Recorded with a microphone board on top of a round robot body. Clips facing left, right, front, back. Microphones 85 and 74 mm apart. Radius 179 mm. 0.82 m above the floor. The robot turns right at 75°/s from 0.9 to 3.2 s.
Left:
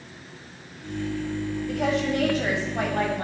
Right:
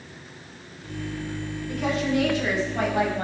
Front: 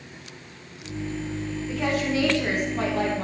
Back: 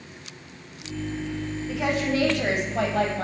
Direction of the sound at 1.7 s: 90° left.